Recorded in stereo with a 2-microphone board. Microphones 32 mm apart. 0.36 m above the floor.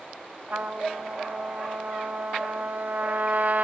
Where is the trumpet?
50° right (ahead or behind), 1.8 m.